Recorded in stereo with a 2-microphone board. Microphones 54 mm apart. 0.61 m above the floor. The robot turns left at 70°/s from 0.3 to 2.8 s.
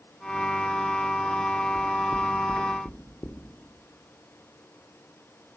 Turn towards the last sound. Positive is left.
turn(degrees=60)  # may be behind; listen again after turning